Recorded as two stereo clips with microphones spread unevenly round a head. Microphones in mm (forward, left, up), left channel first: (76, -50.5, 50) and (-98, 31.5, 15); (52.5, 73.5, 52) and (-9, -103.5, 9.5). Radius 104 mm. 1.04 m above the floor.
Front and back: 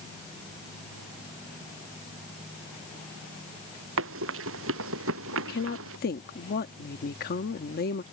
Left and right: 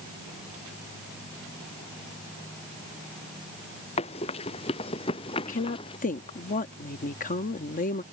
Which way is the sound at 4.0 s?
135° left.